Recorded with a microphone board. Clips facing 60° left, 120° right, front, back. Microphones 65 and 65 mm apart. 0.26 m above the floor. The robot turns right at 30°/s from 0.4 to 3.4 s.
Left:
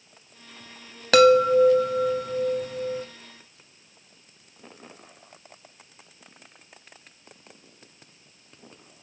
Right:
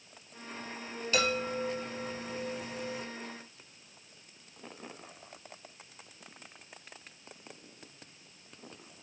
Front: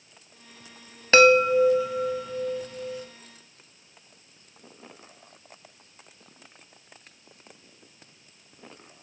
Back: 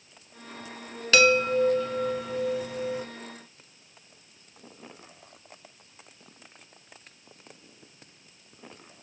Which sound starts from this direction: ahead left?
A chime, at 1.1 s.